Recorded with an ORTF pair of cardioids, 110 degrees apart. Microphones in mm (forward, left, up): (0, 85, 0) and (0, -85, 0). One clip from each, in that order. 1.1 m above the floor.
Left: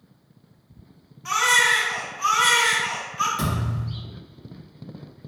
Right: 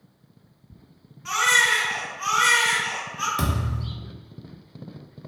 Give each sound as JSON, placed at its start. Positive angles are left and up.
{"t": 1.2, "sound": "a baby crying", "azimuth_deg": 10, "distance_m": 0.8}
{"t": 3.4, "sound": "a thud", "azimuth_deg": -45, "distance_m": 1.2}